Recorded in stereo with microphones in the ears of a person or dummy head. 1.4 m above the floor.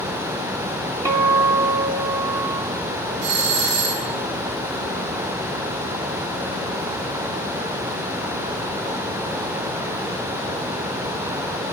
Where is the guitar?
10° right (ahead or behind), 0.6 m.